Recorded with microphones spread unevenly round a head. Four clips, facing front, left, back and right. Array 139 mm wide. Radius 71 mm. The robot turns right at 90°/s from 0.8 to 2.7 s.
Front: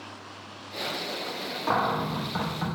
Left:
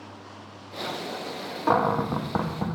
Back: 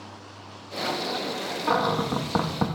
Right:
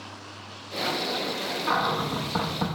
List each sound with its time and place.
1.7 s a cupboard door: 90° left, 0.6 m; by 2.7 s straight behind, 0.6 m